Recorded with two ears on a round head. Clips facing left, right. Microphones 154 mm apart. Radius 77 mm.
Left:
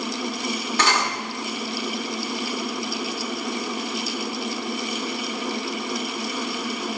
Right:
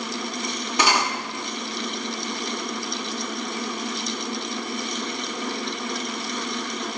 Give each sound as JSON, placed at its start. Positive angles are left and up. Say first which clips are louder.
{"t": 0.8, "sound": "cutlery clinking", "louder": "right 2 dB", "side_deg": -10, "distance_m": 1.1}